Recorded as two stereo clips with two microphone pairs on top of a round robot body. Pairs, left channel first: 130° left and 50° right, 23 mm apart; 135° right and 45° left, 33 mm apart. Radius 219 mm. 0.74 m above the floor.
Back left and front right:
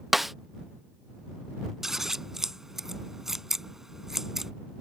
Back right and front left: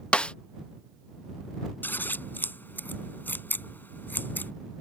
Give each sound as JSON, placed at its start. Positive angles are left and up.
{"t": 0.1, "sound": "a snare drum", "azimuth_deg": -125}
{"t": 1.8, "sound": "scissors", "azimuth_deg": -120}